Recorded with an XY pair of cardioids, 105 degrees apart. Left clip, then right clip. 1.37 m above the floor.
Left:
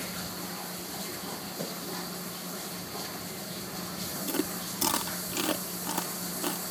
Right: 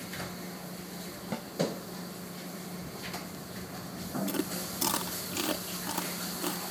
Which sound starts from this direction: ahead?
Chewing, at 4.3 s.